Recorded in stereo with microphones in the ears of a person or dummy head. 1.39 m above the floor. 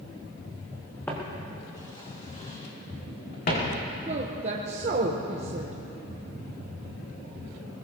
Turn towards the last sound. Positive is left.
turn(degrees=-40)  # may be behind; listen again after turning